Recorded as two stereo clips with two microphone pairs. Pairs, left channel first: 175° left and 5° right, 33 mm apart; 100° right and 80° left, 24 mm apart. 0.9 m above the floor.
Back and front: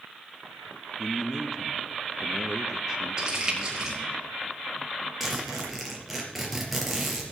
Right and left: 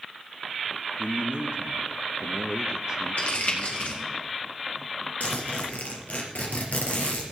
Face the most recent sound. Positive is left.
turn(degrees=-90)